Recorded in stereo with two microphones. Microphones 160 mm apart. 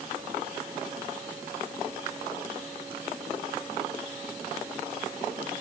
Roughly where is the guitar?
No guitar in this recording.